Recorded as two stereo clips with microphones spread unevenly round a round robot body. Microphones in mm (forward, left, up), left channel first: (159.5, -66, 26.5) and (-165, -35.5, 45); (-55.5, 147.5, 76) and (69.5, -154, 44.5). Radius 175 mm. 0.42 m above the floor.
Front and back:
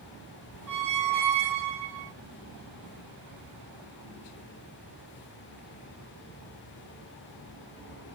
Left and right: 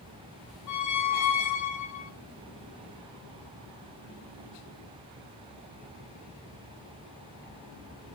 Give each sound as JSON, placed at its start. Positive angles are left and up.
{"t": 0.7, "sound": "a squeak", "azimuth_deg": 150, "distance_m": 1.1}